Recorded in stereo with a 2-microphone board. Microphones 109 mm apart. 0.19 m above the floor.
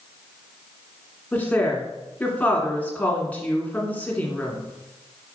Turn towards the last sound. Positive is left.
turn(degrees=15)  # may be behind; listen again after turning